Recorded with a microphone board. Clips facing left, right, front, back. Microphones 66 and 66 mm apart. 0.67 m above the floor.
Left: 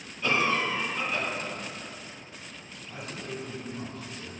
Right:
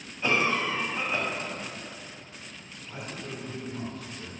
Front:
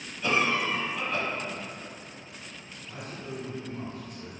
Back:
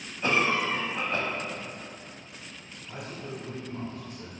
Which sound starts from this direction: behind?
A man speaking, at 2.9 s.